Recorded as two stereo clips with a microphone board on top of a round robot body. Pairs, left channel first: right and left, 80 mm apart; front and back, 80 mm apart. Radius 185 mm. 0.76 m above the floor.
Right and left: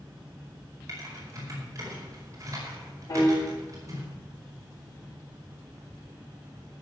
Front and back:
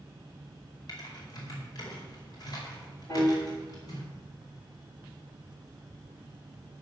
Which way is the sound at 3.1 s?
55° right.